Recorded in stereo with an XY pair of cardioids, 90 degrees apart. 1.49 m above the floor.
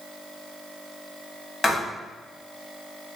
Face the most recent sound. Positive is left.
turn(degrees=20)